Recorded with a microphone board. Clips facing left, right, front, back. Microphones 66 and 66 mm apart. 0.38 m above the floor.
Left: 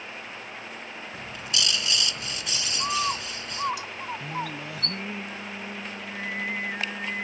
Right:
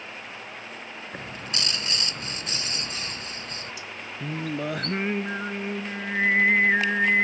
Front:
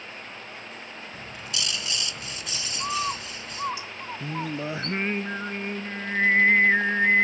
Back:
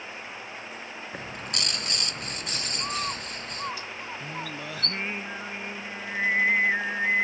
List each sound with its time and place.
1.1 s a bird: 140° right
2.8 s a bird: 70° left
4.2 s singing: 60° right